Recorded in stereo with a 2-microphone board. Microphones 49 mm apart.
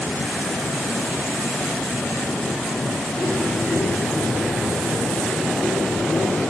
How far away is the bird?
About 7 m.